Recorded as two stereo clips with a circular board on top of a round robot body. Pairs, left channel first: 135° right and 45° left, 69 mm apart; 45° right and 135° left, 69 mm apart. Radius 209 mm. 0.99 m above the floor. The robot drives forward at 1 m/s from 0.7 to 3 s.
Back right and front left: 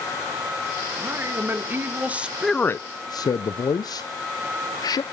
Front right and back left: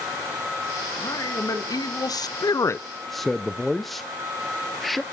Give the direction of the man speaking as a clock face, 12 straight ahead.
12 o'clock.